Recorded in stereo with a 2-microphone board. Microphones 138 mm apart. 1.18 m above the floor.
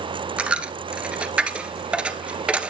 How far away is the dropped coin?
About 1.2 m.